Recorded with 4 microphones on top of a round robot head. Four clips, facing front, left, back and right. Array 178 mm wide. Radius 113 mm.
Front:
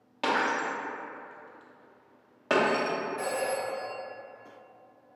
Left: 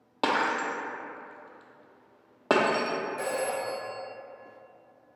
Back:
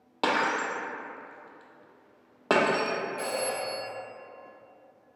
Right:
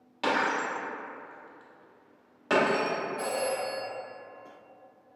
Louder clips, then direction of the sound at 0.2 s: Left 1 dB, back 1 dB; 125° left.